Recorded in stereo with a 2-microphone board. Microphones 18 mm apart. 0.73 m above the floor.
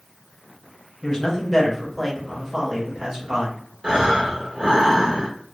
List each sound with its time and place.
1.0 s a man speaking: 35° left (ahead or behind), 1.0 m; by 3.6 s 50° right (ahead or behind), 1.3 m
3.8 s breathing: 85° right, 1.0 m